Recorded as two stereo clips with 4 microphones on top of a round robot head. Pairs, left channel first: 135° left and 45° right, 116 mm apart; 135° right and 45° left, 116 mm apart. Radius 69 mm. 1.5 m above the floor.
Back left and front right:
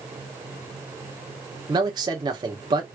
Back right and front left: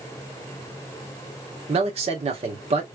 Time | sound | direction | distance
1.7 | a man speaking | 10° left | 1.2 m